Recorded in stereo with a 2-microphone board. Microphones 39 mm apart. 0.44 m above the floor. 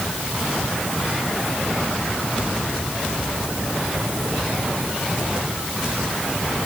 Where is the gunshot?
No gunshot in this recording.